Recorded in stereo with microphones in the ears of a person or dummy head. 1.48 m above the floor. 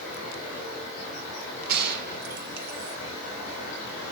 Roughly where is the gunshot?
Right.